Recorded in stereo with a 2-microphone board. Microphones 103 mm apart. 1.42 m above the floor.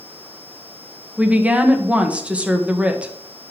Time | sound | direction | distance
1.2 | a woman speaking | 15° right (ahead or behind) | 1.6 m